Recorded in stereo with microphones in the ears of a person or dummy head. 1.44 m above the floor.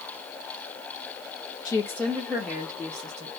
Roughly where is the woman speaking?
Left.